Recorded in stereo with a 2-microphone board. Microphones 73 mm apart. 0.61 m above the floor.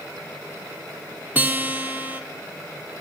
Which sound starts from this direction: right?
A guitar, at 1.4 s.